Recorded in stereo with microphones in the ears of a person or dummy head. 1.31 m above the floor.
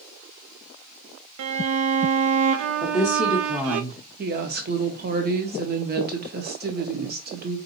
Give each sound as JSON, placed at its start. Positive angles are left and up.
{"t": 1.4, "sound": "a violin", "side_deg": -70, "distance_m": 0.5}
{"t": 2.8, "sound": "a woman speaking", "side_deg": 0, "distance_m": 0.8}
{"t": 4.2, "sound": "a woman speaking", "side_deg": -45, "distance_m": 0.9}